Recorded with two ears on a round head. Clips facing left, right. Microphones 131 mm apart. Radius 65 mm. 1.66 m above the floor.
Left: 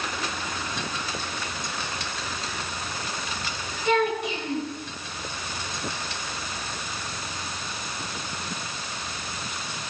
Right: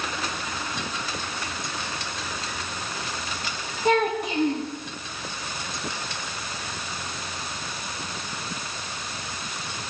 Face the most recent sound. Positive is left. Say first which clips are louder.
# right 1 dB
turn(degrees=-40)  # may be behind; listen again after turning